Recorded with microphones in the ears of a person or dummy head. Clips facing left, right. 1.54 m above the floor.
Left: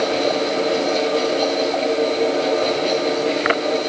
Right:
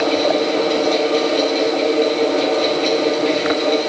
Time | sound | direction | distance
0.0 | a fan | 65° right (ahead or behind) | 5.5 m